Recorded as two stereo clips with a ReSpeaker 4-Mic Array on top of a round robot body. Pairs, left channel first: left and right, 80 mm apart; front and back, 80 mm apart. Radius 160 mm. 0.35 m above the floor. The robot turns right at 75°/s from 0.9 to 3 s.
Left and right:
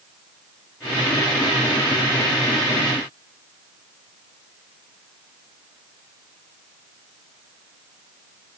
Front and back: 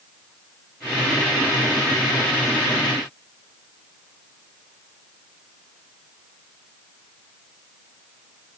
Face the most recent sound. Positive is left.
No sound to turn to.